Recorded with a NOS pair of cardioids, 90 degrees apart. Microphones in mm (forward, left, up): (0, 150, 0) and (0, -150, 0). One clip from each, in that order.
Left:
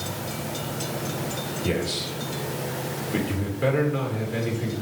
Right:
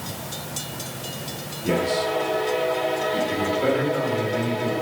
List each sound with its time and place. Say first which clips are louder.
1.6 s a man speaking: right 7 dB; 45° left, 3 m